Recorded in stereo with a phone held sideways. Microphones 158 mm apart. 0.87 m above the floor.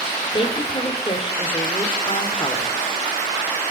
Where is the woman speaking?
35° left (ahead or behind), 3 m.